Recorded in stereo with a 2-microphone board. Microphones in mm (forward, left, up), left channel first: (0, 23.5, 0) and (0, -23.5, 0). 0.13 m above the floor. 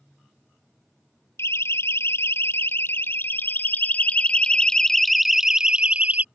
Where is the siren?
65° left (ahead or behind); by 6.2 s 35° right (ahead or behind).